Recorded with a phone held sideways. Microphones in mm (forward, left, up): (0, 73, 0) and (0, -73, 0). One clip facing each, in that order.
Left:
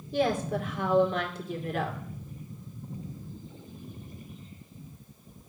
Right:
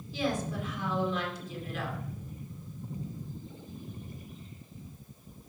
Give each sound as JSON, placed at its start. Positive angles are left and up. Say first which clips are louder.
{"t": 0.1, "sound": "a woman speaking", "louder": "left 5 dB", "side_deg": 55, "distance_m": 2.0}